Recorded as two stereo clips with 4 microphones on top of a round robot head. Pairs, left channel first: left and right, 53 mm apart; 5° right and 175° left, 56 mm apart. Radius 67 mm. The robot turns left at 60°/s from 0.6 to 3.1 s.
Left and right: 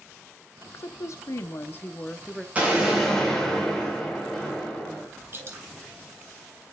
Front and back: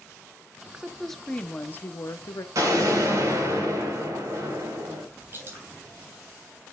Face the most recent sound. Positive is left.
turn(degrees=-130)